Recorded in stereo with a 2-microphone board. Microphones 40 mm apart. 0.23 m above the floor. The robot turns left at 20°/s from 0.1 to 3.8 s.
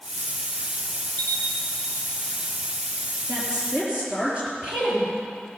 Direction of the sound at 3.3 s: 35° right (ahead or behind).